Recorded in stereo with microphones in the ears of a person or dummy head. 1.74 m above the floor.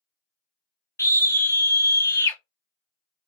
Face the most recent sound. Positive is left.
turn(degrees=20)  # may be behind; listen again after turning